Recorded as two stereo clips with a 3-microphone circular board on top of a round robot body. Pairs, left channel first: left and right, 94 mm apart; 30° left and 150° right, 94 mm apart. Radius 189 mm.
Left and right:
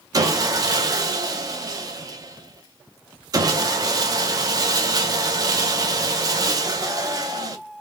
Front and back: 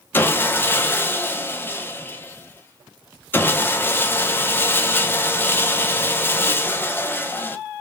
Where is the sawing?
40° right, 0.6 m.